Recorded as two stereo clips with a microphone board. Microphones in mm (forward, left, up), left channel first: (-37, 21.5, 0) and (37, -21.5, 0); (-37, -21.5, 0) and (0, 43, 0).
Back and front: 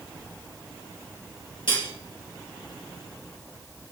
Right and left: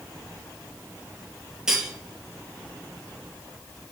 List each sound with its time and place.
1.7 s cutlery clinking: 140° left, 3.5 m